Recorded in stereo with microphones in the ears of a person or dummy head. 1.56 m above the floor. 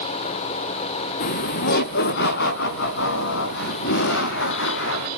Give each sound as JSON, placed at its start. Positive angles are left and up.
{"t": 1.2, "sound": "laughter", "side_deg": 45, "distance_m": 0.8}